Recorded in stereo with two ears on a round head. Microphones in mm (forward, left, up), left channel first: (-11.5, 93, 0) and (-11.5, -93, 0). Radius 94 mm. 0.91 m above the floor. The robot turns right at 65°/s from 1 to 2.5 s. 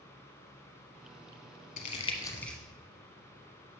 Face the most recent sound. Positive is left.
turn(degrees=5)  # may be behind; listen again after turning